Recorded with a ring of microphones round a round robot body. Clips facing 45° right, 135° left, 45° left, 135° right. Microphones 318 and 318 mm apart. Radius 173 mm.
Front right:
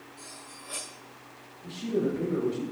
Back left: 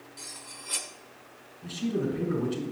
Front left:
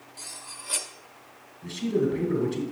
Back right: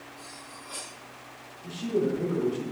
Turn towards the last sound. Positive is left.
turn(degrees=95)